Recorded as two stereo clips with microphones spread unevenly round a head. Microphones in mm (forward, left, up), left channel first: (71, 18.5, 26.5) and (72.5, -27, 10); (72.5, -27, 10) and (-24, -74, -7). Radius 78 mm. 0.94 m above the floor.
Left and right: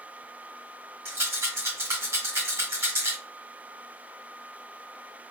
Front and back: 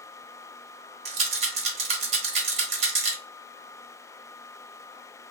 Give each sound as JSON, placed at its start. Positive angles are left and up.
{"t": 1.1, "sound": "a rattle", "azimuth_deg": -160, "distance_m": 0.9}